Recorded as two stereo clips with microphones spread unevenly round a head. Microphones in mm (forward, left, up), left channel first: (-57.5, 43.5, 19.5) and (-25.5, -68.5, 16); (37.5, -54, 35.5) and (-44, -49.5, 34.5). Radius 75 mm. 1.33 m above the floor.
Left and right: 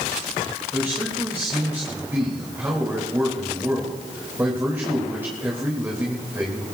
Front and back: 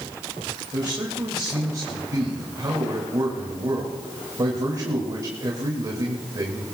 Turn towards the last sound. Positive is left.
turn(degrees=-145)